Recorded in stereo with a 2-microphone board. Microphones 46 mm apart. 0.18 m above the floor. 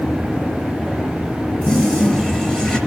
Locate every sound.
1.6 s a toilet flushing: 10° left (ahead or behind), 4 m